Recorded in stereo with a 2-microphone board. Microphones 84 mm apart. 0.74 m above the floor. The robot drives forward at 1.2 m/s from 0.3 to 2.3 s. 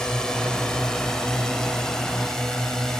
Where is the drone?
10° left (ahead or behind); by 3.0 s 5° left (ahead or behind).